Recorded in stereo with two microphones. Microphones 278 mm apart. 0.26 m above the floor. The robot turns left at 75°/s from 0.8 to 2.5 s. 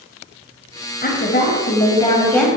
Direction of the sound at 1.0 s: 110° left.